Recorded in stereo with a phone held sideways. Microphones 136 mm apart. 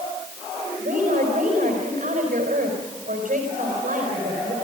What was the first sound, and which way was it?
A woman speaking, 80° right.